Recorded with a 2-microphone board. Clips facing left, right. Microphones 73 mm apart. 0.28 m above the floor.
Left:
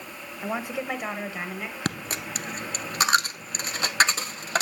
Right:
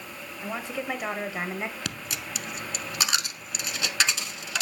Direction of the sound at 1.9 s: 45° left (ahead or behind).